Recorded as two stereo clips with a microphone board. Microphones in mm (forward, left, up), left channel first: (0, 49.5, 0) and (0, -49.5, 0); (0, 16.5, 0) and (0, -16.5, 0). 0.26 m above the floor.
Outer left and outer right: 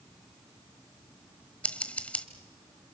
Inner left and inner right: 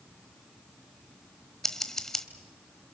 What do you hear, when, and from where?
1.6 s scissors: 15° left (ahead or behind), 1.4 m